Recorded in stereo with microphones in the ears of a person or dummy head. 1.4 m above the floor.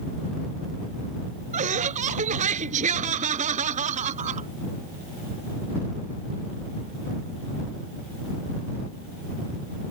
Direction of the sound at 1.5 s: 45° right (ahead or behind).